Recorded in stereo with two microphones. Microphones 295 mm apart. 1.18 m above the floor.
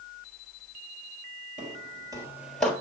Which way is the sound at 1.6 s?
30° right (ahead or behind).